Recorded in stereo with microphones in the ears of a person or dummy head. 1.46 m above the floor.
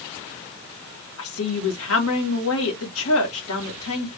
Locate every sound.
1.2 s a woman speaking: 85° left, 2.0 m